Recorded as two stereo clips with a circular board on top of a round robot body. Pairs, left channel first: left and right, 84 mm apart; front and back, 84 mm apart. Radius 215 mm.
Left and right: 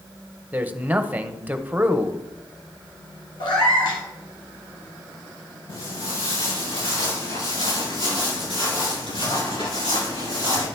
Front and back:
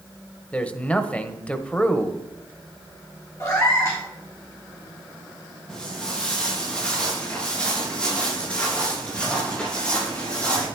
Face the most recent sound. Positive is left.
turn(degrees=75)